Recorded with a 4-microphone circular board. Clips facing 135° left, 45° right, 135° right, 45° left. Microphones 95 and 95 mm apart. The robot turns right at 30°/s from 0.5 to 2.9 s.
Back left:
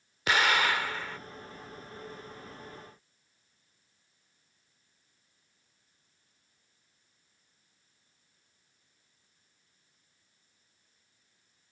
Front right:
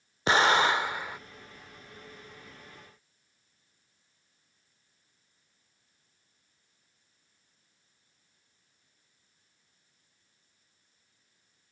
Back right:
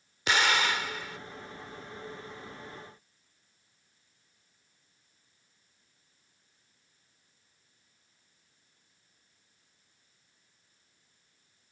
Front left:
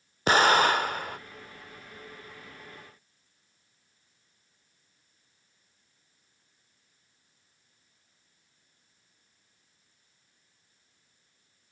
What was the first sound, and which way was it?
An explosion, 10° left.